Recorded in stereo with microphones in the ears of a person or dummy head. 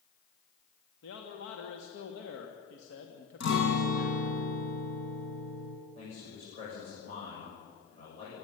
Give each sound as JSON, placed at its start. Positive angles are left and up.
{"t": 1.0, "sound": "a man speaking", "side_deg": 80, "distance_m": 2.5}
{"t": 3.4, "sound": "a guitar", "side_deg": 70, "distance_m": 5.0}
{"t": 6.0, "sound": "a man speaking", "side_deg": 45, "distance_m": 8.0}